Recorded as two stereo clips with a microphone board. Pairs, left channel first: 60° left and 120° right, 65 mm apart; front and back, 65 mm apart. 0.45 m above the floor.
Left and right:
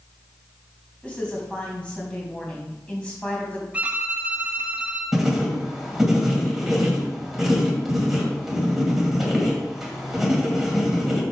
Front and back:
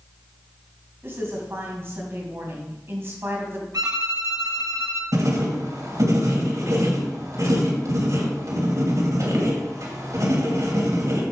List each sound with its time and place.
1.0 s a woman speaking: 130° left, 3 m
3.7 s a violin: 175° left, 1.4 m
5.1 s writing: 155° left, 2.5 m